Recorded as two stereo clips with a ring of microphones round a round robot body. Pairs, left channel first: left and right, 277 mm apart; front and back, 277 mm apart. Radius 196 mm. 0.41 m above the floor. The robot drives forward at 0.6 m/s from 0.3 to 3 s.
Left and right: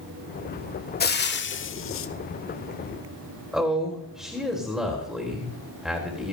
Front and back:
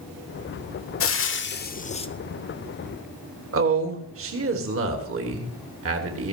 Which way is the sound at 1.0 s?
35° left.